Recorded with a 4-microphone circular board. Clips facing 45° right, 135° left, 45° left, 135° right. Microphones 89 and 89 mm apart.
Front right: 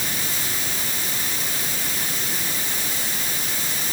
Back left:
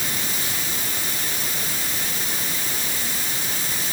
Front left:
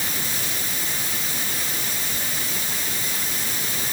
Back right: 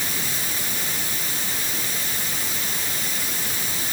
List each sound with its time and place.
Only background noise.